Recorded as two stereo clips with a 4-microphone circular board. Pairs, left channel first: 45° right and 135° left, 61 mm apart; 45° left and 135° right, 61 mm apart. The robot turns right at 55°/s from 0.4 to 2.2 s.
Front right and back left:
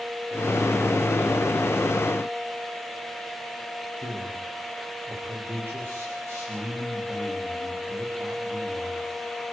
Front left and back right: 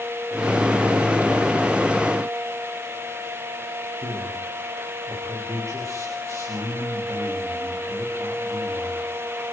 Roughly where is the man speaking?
Behind.